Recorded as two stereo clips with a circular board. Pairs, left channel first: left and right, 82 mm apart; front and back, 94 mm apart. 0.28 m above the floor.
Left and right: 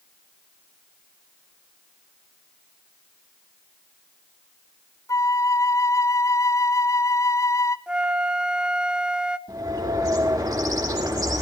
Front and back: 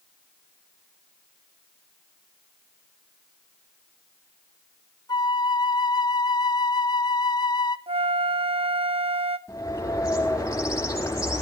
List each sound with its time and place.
5.1 s a flute: 40° left, 0.5 m
7.9 s a flute: 170° right, 0.6 m
9.5 s a bird: 55° right, 5 m